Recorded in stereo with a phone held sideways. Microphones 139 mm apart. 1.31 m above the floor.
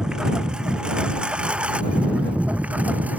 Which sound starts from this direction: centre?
A lawn mower, at 0.0 s.